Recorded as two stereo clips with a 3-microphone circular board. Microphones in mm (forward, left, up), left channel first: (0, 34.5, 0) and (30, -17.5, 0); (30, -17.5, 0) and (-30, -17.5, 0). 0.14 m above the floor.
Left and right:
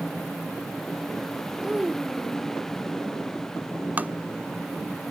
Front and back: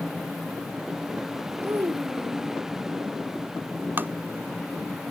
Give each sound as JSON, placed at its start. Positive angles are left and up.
{"t": 1.6, "sound": "a child speaking", "azimuth_deg": -135}
{"t": 4.0, "sound": "tapping", "azimuth_deg": -120}